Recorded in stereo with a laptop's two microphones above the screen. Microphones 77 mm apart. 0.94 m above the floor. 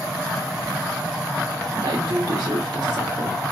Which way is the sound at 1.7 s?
65° right (ahead or behind).